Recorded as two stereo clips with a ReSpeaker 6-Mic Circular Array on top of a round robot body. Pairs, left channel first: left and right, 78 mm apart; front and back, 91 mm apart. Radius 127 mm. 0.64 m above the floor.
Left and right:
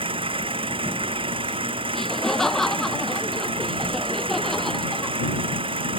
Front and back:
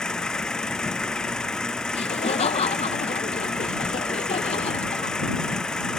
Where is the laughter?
5° left.